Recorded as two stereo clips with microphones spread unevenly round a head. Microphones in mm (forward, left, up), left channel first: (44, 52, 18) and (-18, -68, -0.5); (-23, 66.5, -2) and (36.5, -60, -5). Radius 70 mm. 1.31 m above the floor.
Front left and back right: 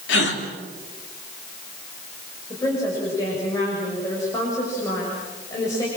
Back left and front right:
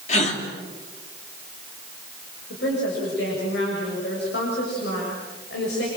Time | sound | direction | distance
0.1 | a gasp | 70° left | 3 m
2.5 | a woman speaking | 135° left | 7 m